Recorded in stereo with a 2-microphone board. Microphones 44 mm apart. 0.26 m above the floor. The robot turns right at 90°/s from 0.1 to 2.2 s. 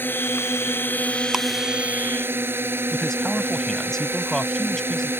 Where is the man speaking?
10° left (ahead or behind).